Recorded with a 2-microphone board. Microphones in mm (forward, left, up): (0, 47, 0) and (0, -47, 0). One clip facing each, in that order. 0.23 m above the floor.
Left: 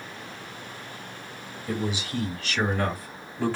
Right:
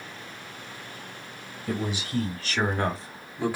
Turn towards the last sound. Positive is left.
turn(degrees=-10)  # may be behind; listen again after turning